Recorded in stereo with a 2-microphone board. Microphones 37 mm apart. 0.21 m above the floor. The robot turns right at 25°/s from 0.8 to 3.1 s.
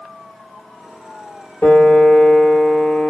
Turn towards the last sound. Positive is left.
turn(degrees=130)